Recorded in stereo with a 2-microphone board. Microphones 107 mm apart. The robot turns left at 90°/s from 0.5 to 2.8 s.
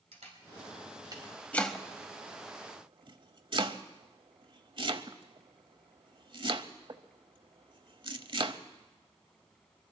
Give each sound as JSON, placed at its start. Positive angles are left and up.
{"t": 0.1, "sound": "a camera shutter", "side_deg": -80, "distance_m": 4.5}
{"t": 1.5, "sound": "chopping", "side_deg": 15, "distance_m": 0.8}